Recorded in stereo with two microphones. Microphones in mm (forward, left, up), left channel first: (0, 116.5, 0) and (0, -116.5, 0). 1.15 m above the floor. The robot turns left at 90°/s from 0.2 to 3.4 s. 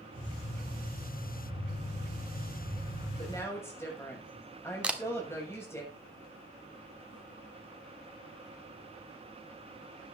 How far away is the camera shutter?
About 1.4 m.